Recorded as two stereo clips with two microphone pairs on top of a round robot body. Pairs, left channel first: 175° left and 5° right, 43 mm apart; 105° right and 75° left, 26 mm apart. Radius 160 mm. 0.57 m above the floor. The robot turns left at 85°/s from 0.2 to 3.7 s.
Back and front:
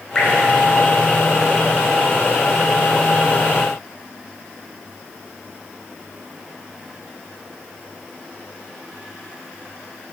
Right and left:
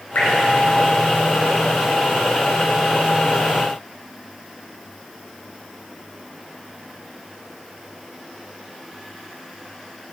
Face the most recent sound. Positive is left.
turn(degrees=-45)